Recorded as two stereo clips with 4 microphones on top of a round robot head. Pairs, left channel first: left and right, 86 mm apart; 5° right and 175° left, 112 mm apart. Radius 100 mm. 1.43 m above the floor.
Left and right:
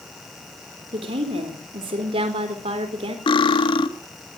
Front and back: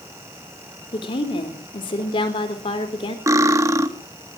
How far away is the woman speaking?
About 3 m.